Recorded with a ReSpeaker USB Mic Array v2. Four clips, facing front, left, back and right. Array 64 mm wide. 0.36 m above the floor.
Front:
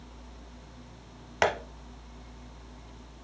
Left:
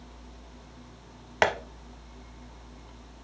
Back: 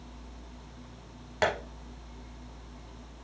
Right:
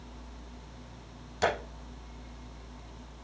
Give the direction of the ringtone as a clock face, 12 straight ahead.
I don't hear a ringtone.